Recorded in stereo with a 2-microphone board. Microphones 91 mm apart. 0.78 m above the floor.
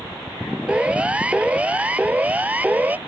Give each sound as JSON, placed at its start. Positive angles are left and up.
{"t": 0.7, "sound": "a siren", "side_deg": -10}